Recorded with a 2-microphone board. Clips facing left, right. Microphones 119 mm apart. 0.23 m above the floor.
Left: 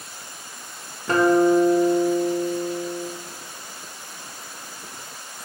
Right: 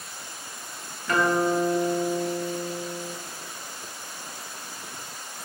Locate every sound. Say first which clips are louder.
1.1 s a guitar: left 6 dB; 35° left (ahead or behind), 0.5 m